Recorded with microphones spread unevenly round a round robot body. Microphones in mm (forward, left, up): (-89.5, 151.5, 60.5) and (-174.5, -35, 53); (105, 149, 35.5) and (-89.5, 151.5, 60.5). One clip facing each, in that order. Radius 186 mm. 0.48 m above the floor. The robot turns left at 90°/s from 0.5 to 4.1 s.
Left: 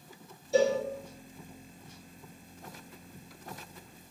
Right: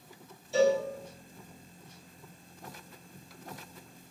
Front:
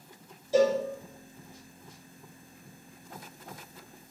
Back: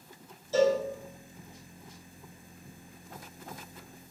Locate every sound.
0.5 s a cowbell: 55° left, 1.0 m; by 0.8 s 35° left, 1.0 m